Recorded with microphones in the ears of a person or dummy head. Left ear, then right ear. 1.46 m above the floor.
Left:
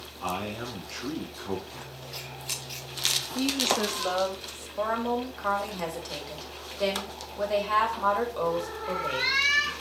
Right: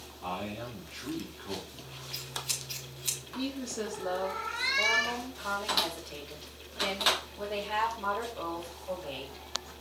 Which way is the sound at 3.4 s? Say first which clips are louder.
Left 10 dB; 80° left.